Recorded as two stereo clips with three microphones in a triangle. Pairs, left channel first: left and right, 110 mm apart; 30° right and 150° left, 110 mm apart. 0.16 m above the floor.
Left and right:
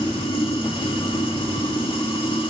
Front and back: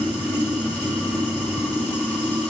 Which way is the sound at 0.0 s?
45° left.